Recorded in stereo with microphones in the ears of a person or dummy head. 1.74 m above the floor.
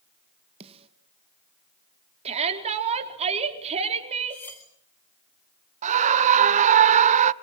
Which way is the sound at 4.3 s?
15° left (ahead or behind).